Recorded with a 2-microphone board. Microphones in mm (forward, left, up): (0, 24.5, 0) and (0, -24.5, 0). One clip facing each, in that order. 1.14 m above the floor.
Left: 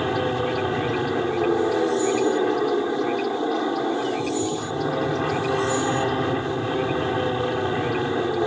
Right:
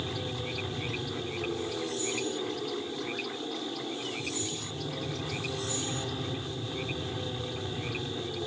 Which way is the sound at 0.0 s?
55° left (ahead or behind).